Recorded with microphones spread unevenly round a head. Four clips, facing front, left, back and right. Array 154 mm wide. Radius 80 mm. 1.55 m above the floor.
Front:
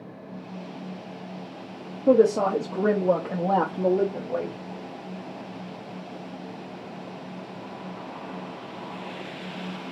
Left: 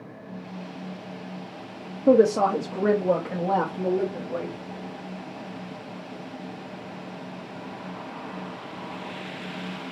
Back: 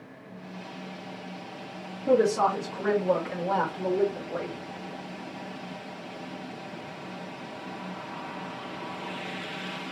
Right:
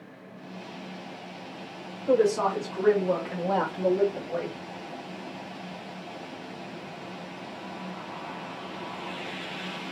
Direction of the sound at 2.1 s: 65° left.